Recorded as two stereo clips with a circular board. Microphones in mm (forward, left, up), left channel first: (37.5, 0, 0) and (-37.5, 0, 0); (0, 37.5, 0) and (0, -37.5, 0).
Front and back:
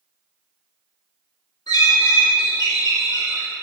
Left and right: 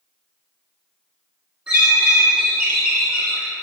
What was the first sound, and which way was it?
A bird, 20° right.